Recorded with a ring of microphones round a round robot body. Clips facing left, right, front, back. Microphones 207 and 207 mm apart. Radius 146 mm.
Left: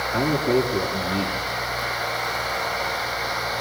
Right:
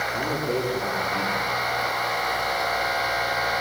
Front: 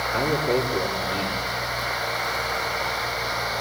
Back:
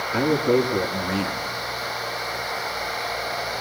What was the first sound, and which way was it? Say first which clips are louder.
A man speaking: left 7 dB, back 4 dB; 150° left.